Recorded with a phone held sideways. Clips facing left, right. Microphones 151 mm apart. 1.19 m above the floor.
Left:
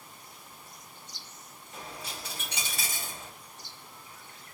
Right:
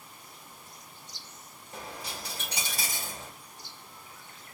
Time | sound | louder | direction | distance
1.7 | a dropped coin | right 2 dB | 35° right (ahead or behind) | 1.5 m